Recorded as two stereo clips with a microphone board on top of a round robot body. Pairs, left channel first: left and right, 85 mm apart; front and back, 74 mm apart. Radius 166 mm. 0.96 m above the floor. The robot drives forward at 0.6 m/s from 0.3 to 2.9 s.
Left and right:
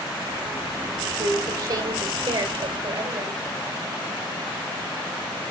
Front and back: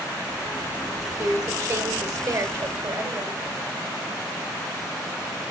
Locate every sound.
1.1 s a woman speaking: 135° right, 4.5 m; by 3.4 s 145° right, 5.5 m